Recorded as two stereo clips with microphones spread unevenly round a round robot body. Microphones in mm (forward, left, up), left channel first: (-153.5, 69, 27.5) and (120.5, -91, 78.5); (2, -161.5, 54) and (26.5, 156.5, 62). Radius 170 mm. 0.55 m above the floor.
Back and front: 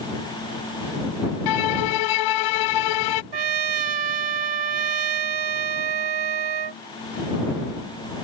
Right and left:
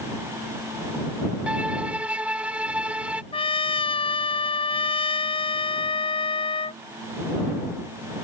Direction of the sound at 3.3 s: 20° right.